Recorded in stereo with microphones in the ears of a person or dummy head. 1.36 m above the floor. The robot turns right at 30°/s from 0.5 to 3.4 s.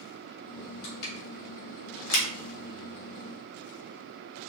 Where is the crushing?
55° left (ahead or behind), 2.0 m; by 2.2 s 80° left, 2.0 m.